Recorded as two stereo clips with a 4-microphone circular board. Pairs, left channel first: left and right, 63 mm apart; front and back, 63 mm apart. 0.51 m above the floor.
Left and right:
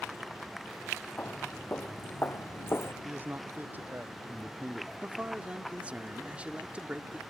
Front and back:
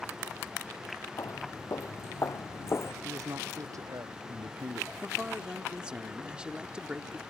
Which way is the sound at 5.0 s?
125° right.